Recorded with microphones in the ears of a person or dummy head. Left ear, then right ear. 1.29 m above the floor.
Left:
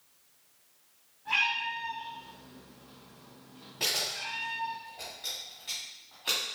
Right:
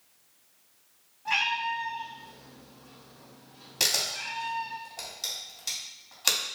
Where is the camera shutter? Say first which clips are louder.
Right 4 dB; 85° right, 1.8 m.